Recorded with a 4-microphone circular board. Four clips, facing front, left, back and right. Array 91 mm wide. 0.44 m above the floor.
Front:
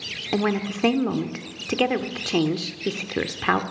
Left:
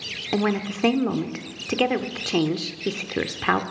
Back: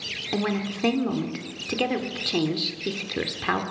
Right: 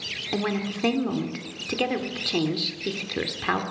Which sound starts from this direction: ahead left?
A woman speaking, at 0.3 s.